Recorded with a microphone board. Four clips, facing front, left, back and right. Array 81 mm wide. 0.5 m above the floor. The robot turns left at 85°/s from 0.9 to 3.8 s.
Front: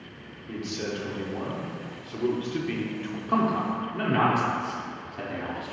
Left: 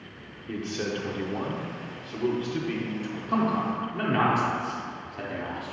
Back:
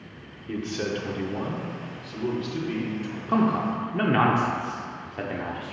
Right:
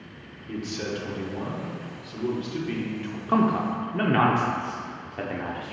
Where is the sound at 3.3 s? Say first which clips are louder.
Right 3 dB, back 2 dB; 95° right, 0.7 m; by 5.7 s 140° right, 0.7 m.